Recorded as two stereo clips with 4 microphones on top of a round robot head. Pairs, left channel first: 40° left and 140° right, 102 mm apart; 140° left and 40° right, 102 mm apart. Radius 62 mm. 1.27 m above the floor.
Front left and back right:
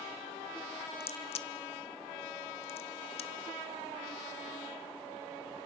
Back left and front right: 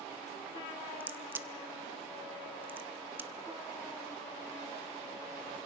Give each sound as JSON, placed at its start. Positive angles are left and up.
{"t": 1.0, "sound": "a crack", "azimuth_deg": 30, "distance_m": 1.1}